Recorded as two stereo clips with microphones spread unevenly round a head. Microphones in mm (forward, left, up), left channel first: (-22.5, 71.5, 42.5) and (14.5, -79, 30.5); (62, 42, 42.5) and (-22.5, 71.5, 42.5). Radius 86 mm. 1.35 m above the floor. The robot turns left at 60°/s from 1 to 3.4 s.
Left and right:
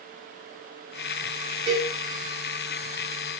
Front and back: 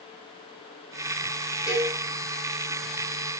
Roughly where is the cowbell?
Behind right.